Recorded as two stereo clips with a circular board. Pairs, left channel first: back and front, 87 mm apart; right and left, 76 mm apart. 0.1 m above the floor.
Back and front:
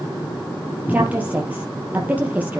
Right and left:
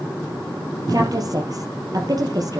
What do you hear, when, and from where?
0.9 s a woman speaking: 70° left, 3 m